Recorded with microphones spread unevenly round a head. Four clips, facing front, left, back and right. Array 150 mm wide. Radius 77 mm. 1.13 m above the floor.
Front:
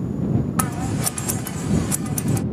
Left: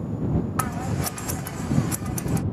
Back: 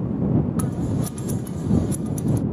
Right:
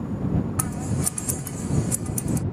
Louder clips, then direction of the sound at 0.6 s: Left 1 dB, even; 30° left.